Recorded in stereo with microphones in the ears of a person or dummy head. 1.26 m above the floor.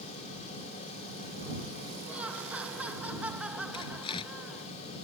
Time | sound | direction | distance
2.1 | laughter | 5° right (ahead or behind) | ?
3.7 | tearing paper | 30° left (ahead or behind) | ?